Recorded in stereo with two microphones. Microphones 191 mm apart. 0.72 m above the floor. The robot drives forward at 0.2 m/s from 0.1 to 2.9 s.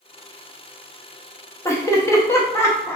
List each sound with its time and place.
1.6 s laughter: 15° left (ahead or behind), 0.6 m